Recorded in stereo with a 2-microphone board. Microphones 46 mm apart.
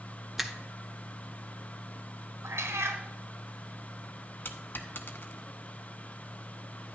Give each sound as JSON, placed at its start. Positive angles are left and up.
{"t": 0.4, "sound": "a finger snap", "side_deg": -5, "distance_m": 0.8}
{"t": 2.4, "sound": "a cat meowing", "side_deg": -85, "distance_m": 1.5}
{"t": 4.5, "sound": "a dropped coin", "side_deg": 50, "distance_m": 0.8}